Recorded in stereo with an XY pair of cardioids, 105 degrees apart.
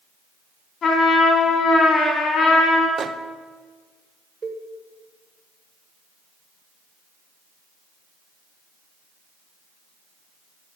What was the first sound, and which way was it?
A trumpet, 60° left.